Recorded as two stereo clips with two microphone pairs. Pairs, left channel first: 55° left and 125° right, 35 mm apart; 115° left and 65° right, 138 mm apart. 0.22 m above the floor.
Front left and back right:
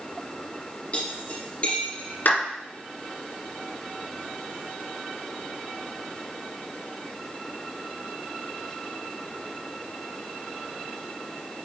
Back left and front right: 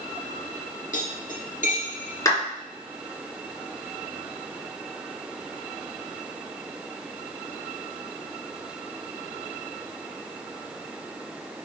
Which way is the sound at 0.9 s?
105° left.